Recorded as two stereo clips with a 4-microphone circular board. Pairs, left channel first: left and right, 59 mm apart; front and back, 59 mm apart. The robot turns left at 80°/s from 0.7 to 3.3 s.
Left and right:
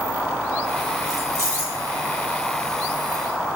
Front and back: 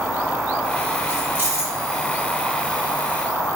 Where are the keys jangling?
100° right, 1.0 m; by 1.8 s 155° right, 1.0 m.